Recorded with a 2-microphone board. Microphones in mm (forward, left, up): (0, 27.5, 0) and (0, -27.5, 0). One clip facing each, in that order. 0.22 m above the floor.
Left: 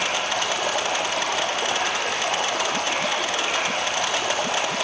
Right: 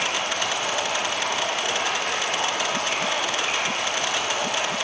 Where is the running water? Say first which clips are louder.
Left 1 dB; 80° left, 2.5 m.